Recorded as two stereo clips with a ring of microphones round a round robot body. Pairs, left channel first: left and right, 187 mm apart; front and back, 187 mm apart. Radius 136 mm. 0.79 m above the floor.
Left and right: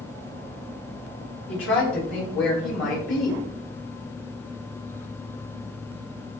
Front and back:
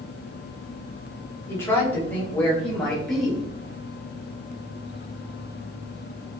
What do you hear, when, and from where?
1.5 s a woman speaking: 75° left, 4 m; by 3.4 s 90° left, 5 m